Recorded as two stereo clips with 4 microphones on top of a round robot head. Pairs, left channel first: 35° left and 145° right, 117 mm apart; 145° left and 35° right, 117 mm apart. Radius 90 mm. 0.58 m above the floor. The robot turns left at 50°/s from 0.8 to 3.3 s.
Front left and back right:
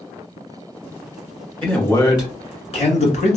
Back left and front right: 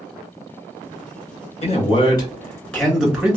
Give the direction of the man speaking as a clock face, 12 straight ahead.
8 o'clock.